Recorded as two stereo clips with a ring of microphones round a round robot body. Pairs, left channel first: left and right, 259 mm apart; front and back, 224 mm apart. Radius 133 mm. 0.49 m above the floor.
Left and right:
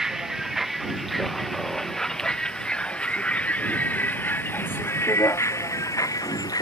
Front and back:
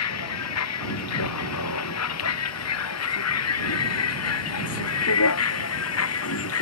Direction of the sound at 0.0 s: Straight ahead.